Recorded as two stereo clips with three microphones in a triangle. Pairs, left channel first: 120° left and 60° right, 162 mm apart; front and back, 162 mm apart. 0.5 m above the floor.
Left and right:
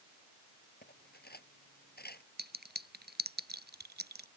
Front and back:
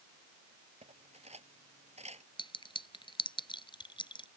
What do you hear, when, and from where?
0.8 s cutlery clinking: 130° left
2.4 s a clink: 60° right